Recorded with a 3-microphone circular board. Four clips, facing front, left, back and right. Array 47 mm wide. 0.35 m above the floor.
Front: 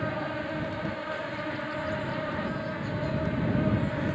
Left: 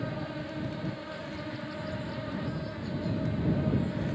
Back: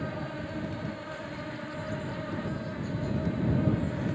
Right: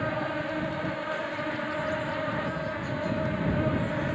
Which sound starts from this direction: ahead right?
An insect, at 0.0 s.